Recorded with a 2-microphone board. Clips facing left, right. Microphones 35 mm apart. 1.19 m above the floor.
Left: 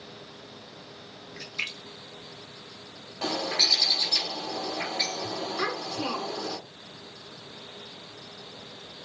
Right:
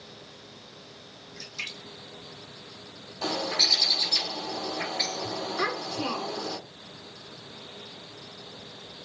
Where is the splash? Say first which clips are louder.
Left 3 dB; 40° left (ahead or behind), 0.7 m.